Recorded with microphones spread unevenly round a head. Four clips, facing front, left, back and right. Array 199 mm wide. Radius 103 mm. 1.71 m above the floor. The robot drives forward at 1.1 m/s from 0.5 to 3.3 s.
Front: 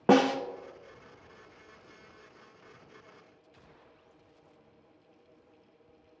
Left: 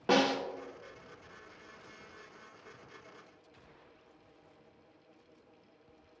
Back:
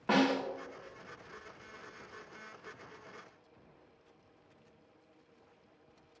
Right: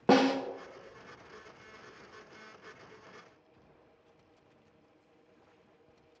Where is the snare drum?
30° right, 0.6 m.